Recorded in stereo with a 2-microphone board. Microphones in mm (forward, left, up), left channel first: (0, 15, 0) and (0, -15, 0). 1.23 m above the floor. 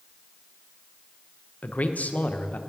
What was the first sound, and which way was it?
A man speaking, 60° left (ahead or behind).